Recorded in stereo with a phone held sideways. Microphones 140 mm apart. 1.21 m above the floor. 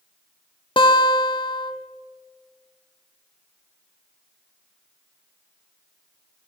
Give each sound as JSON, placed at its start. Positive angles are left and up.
{"t": 0.8, "sound": "a guitar", "side_deg": 35, "distance_m": 0.6}